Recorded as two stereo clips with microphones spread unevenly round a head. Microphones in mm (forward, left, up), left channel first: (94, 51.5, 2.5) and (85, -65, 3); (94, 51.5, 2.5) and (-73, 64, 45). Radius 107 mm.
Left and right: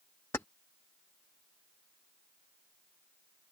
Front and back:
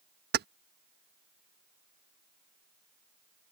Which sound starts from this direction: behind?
Keys jangling, at 0.3 s.